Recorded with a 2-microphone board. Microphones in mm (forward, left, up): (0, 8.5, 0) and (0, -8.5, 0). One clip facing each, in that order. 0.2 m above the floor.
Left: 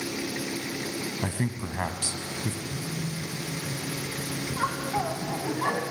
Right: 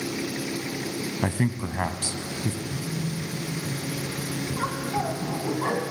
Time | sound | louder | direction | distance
1.2 | a man speaking | right 4 dB | 25° right (ahead or behind) | 1.0 m
2.6 | a phone buzzing | right 2 dB | 55° left (ahead or behind) | 3 m
4.5 | laughter | left 1 dB | 10° left (ahead or behind) | 1.9 m